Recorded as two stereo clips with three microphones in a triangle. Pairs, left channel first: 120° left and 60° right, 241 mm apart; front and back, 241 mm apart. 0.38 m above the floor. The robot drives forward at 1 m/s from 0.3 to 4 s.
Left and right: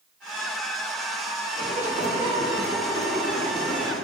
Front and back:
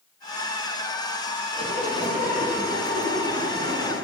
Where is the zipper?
115° right, 4.5 m; by 4.0 s 135° right, 6 m.